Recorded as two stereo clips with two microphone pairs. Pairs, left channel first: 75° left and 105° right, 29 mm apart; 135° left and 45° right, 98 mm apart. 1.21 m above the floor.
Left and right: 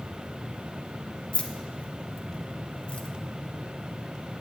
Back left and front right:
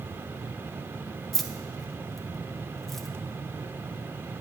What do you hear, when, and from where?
1.3 s keys jangling: 50° left, 0.6 m